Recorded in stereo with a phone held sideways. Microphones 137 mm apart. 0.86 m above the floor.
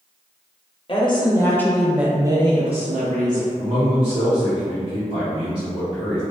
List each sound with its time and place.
0.9 s a woman speaking: 40° left (ahead or behind), 0.8 m; by 3.5 s 65° right (ahead or behind), 0.9 m
3.6 s a man speaking: 40° right (ahead or behind), 0.9 m